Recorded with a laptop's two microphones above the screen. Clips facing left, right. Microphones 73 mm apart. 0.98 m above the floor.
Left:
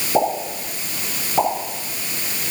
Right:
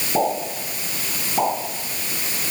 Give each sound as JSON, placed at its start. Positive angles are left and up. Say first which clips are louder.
{"t": 0.1, "sound": "a pop", "louder": "left 2 dB", "side_deg": 15, "distance_m": 5.5}